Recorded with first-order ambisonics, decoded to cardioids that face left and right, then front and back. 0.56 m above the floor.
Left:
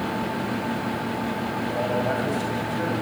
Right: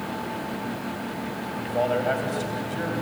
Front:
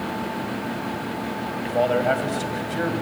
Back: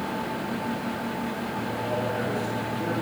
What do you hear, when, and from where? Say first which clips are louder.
1.6 s a man speaking: right 3 dB, front 10 dB; 20° right, 3.5 m; by 2.9 s 5° right, 4 m